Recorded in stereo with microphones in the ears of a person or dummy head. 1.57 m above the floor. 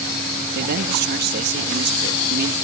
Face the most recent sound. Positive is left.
turn(degrees=-55)  # may be behind; listen again after turning